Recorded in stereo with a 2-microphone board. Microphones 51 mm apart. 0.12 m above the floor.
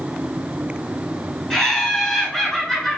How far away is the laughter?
About 1.5 m.